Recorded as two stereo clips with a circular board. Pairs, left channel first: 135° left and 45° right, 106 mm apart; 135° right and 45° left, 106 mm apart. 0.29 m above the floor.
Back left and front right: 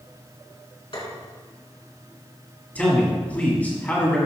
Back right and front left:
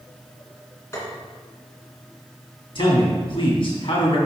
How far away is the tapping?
About 2.5 m.